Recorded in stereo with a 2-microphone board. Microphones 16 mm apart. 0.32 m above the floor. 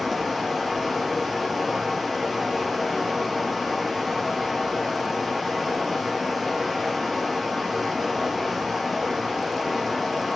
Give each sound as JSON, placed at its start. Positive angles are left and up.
{"t": 0.0, "sound": "running water", "side_deg": -10, "distance_m": 2.5}